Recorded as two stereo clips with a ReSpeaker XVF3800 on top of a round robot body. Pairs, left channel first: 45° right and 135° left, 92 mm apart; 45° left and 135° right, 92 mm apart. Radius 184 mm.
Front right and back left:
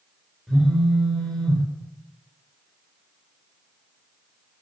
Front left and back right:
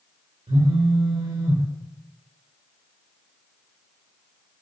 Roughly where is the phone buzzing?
Behind right.